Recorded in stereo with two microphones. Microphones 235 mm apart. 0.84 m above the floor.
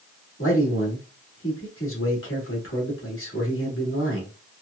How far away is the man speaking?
About 1.9 m.